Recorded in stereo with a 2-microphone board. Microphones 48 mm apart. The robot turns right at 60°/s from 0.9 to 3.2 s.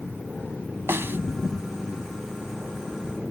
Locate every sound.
0.9 s a snare drum: 60° right (ahead or behind); by 1.2 s 50° right (ahead or behind)